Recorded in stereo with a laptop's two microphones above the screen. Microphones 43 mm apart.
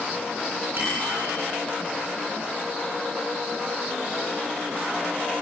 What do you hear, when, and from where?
0.8 s a bicycle bell: 55° right (ahead or behind), 9 m